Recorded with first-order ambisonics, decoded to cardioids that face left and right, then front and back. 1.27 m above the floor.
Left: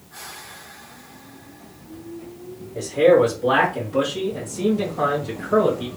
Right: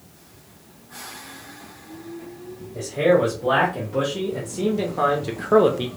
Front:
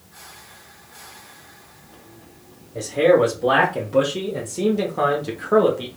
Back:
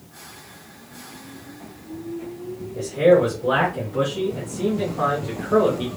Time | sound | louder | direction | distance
2.8 | a man speaking | left 3 dB, even | 5° left | 1.6 m